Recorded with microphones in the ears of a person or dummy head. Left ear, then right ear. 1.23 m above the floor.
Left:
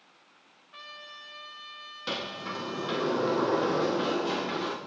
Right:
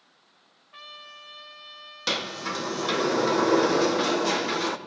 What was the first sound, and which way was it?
A trumpet, 5° right (ahead or behind).